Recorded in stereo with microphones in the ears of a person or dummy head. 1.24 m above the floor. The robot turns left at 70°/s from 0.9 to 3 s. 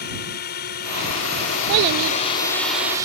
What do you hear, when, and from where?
0.0 s a drone: 130° left; by 3.0 s 20° right
1.7 s a child speaking: 55° right; by 2.2 s 85° right